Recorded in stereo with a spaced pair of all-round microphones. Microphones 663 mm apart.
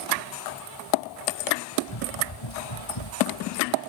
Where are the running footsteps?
40° left (ahead or behind); by 3.8 s 50° left (ahead or behind).